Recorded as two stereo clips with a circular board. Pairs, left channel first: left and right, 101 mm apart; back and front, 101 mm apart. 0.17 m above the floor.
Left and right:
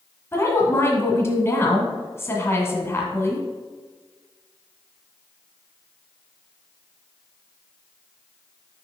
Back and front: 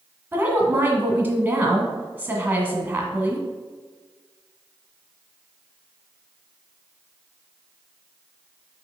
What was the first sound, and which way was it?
A woman speaking, 55° left.